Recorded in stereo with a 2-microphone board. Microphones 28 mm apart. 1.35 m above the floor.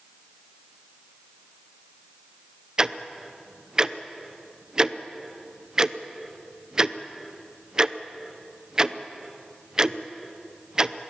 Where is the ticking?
25° right (ahead or behind), 0.6 m.